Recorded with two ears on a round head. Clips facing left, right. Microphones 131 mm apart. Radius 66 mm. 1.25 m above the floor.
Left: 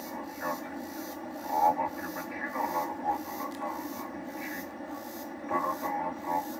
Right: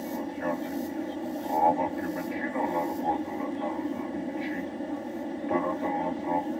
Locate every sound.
0.0 s an aircraft: 35° right (ahead or behind)